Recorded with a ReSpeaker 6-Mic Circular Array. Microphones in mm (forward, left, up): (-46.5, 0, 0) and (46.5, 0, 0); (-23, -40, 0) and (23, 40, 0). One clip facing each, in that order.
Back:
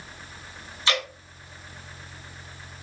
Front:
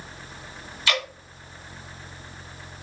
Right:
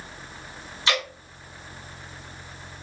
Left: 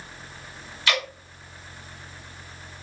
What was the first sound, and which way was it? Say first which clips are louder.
Dripping: even, even; 160° right.